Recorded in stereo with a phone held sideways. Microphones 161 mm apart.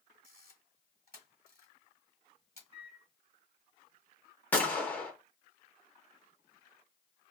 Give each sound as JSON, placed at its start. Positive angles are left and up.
{"t": 0.2, "sound": "a camera shutter", "side_deg": 65, "distance_m": 1.4}
{"t": 2.7, "sound": "a microwave", "side_deg": -35, "distance_m": 0.8}
{"t": 4.5, "sound": "a gunshot", "side_deg": 10, "distance_m": 0.8}